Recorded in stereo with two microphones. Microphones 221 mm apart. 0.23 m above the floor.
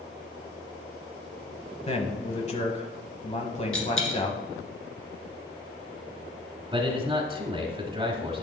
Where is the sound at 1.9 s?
30° left (ahead or behind), 1.1 m.